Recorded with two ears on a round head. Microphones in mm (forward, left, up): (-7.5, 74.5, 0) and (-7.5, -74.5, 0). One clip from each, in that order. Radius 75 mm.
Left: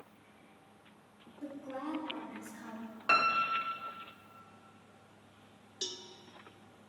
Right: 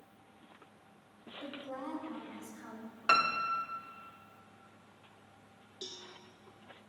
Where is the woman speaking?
45° right (ahead or behind), 3.5 m; by 3.0 s 30° right (ahead or behind), 5.5 m.